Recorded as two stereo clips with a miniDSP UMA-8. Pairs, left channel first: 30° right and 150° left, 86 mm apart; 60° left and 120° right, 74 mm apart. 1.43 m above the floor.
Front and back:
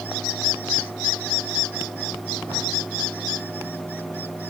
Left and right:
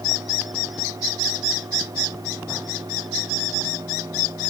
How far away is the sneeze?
I don't hear a sneeze.